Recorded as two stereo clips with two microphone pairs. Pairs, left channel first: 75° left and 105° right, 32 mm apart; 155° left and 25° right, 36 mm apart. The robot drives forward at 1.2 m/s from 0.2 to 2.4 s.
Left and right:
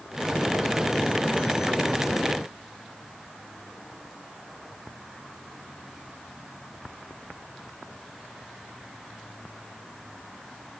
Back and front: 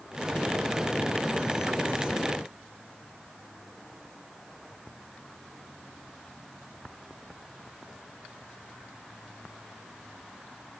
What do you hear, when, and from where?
Only background noise.